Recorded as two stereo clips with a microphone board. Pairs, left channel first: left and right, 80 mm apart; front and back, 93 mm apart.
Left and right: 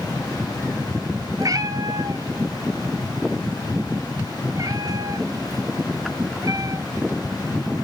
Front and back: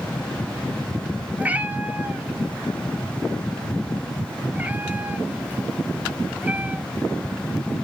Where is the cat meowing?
110° right, 0.6 m.